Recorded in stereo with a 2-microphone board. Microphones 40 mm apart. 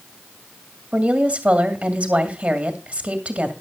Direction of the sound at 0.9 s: 35° right (ahead or behind).